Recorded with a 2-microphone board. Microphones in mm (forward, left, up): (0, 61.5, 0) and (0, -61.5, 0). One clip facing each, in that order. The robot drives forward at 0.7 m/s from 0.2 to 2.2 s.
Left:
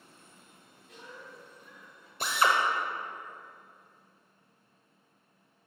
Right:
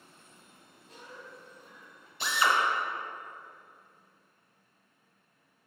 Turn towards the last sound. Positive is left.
turn(degrees=45)  # may be behind; listen again after turning